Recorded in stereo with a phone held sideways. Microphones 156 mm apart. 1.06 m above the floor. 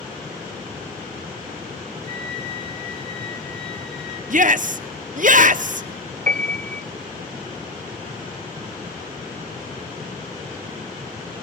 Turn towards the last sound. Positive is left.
turn(degrees=-60)  # may be behind; listen again after turning